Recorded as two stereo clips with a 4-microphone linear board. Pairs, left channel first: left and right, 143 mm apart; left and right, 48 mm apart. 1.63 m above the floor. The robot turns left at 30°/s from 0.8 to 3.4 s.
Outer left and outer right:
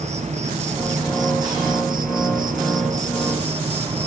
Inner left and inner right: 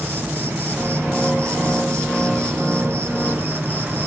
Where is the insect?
55° right, 1.4 m; by 4.1 s 130° right, 1.4 m.